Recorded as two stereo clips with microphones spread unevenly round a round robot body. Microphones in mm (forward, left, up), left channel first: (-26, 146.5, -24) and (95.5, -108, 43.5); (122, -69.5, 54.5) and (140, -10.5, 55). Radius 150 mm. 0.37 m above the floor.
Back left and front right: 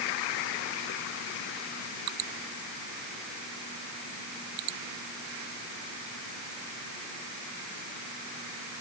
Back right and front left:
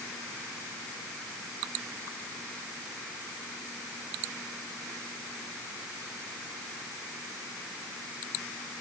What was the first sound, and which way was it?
Only background noise.